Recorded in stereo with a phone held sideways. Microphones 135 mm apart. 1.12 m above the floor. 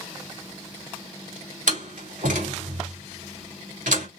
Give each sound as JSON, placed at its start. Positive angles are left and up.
{"t": 1.7, "sound": "a door slam", "side_deg": -75, "distance_m": 2.5}